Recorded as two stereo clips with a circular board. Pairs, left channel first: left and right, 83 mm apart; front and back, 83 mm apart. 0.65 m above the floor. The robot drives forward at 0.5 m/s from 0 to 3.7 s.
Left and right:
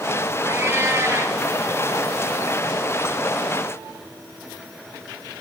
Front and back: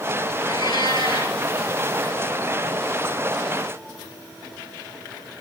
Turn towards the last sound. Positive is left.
turn(degrees=-40)